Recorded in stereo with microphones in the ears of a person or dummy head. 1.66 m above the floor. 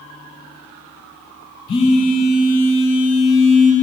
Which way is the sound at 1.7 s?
35° left (ahead or behind).